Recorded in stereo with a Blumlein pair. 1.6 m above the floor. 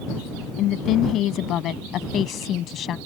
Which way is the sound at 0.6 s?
35° left.